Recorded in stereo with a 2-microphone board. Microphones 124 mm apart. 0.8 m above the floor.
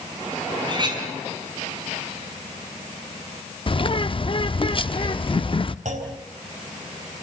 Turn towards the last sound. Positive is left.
turn(degrees=-70)  # may be behind; listen again after turning